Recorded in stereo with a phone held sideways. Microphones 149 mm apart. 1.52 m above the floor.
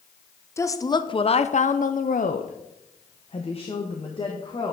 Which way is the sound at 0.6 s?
20° left (ahead or behind).